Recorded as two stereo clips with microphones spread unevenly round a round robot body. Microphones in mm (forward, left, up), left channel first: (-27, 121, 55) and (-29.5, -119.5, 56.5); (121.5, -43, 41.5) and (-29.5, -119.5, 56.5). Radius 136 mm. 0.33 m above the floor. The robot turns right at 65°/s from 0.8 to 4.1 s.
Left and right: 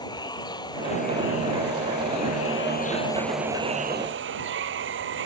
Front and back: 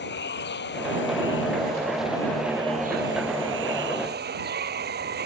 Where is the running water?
15° left; by 5.3 s 130° right.